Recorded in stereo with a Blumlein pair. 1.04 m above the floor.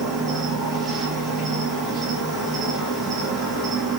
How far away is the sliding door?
No sliding door in this recording.